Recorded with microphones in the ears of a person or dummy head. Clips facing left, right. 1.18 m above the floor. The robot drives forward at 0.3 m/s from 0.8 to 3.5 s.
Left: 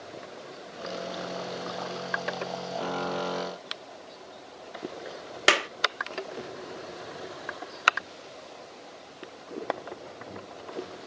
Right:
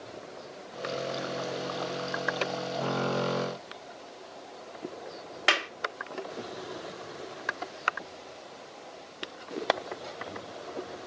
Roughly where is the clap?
Left.